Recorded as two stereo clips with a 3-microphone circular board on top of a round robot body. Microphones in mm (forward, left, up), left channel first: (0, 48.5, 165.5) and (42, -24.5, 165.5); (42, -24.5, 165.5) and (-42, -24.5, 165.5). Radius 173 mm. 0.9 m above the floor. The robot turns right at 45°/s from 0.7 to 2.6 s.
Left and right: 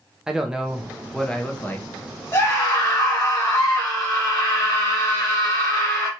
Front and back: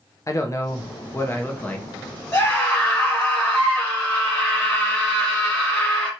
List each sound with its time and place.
0.3 s a man speaking: 15° left, 0.7 m; by 1.9 s 70° left, 0.7 m
2.3 s a scream: 65° left, 1.6 m; by 6.1 s 75° left, 1.6 m